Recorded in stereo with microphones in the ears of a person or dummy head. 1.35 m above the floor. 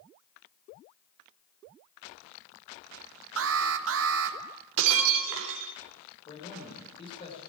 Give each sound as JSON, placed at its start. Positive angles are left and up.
{"t": 3.4, "sound": "an alarm", "side_deg": -65, "distance_m": 1.7}
{"t": 4.8, "sound": "breaking glass", "side_deg": -75, "distance_m": 2.5}
{"t": 6.3, "sound": "a man speaking", "side_deg": 35, "distance_m": 6.0}